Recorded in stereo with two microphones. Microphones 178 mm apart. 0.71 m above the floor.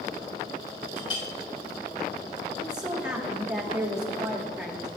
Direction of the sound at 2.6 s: 5° right (ahead or behind).